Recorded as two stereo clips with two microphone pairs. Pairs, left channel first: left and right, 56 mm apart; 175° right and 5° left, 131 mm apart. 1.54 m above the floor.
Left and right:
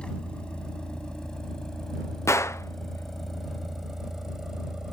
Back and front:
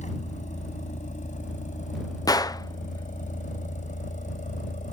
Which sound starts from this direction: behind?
A vehicle, at 0.0 s.